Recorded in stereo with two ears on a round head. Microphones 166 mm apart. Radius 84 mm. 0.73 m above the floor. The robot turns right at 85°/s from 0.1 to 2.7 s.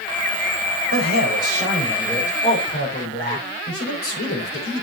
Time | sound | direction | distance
0.9 | a man speaking | 100° right | 4 m